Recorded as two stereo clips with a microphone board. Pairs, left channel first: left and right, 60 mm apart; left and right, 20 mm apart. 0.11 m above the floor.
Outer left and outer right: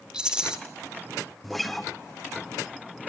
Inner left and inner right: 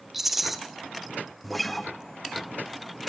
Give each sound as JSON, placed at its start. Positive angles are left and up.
{"t": 0.1, "sound": "a rattle", "side_deg": -15, "distance_m": 1.0}
{"t": 1.4, "sound": "a guitar", "side_deg": 5, "distance_m": 0.8}